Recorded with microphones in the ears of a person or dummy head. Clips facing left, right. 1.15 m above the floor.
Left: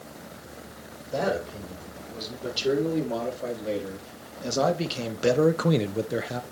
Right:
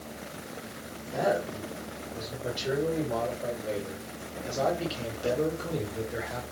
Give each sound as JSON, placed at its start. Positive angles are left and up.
{"t": 1.1, "sound": "a man speaking", "side_deg": 40, "distance_m": 4.0}